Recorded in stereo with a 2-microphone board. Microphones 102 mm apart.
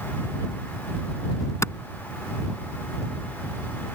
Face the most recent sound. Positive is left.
turn(degrees=30)  # may be behind; listen again after turning